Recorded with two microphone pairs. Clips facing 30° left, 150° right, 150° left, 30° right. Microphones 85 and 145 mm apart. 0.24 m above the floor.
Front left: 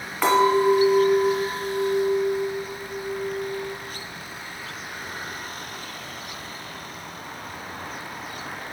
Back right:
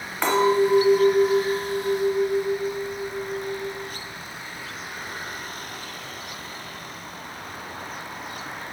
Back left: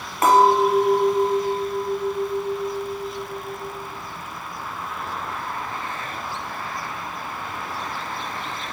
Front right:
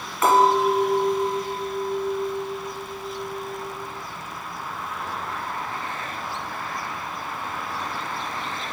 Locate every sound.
0.2 s a clink: 115° left, 1.3 m